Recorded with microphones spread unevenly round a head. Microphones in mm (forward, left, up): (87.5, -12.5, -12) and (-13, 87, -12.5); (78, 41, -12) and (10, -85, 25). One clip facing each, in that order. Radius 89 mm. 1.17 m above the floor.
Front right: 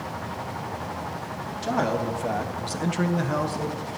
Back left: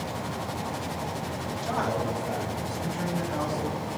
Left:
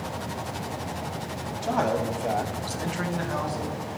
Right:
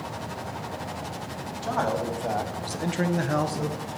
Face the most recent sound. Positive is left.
turn(degrees=-120)